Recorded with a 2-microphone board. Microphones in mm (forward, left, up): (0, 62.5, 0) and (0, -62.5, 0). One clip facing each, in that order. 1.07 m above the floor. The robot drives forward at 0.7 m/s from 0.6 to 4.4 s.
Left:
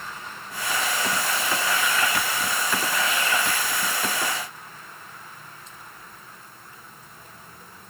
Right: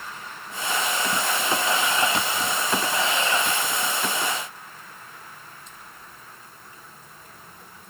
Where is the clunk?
No clunk in this recording.